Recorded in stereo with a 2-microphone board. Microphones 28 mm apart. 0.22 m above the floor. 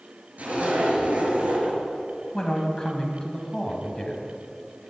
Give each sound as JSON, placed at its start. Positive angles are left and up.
{"t": 0.4, "sound": "a zipper", "side_deg": -65, "distance_m": 2.5}
{"t": 2.3, "sound": "a man speaking", "side_deg": 25, "distance_m": 1.7}